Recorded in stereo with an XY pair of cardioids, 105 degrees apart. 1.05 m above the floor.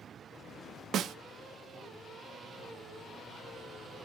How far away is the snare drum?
About 0.7 m.